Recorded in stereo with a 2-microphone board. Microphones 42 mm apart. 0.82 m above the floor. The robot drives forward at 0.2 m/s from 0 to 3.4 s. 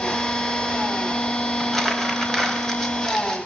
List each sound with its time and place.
1.6 s crumpling: 5° left (ahead or behind), 5 m